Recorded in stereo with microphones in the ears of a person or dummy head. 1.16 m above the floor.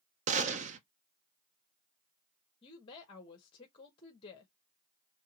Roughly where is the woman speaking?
Left.